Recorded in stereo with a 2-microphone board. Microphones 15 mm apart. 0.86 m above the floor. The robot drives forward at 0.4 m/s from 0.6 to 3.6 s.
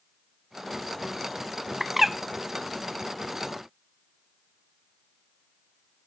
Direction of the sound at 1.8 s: 20° right (ahead or behind).